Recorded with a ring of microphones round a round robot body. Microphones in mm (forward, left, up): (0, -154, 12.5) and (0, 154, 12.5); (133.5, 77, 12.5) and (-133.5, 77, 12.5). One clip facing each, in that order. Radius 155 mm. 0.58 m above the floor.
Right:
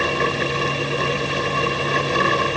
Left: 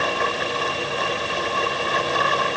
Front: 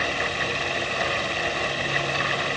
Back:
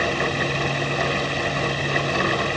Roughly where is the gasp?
No gasp in this recording.